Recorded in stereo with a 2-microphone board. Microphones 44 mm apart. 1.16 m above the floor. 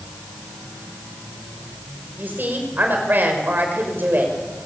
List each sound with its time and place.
2.2 s a woman speaking: 50° right (ahead or behind), 5.5 m